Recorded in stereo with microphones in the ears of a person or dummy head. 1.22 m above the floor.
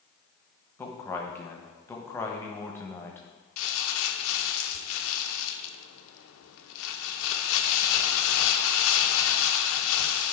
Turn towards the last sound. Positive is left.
turn(degrees=75)  # may be behind; listen again after turning